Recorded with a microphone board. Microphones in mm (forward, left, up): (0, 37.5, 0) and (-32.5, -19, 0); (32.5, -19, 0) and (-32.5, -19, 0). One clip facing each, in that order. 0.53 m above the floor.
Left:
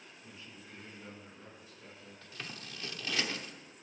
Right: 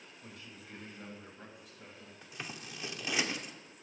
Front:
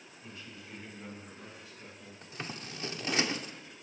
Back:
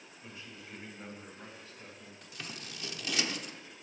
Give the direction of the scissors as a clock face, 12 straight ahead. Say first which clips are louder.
Right 2 dB, front 4 dB; 2 o'clock.